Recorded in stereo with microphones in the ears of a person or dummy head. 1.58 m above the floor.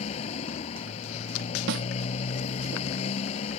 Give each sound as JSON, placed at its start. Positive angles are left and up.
{"t": 0.0, "sound": "a motorcycle", "side_deg": 35}
{"t": 1.7, "sound": "a snare drum", "side_deg": -60}